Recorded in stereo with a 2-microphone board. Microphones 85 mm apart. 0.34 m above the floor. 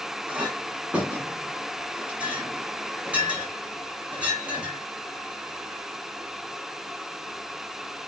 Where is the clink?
15° right (ahead or behind), 2.5 m.